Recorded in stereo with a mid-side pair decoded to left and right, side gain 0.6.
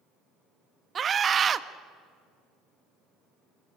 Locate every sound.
0.9 s a scream: 35° right, 1.4 m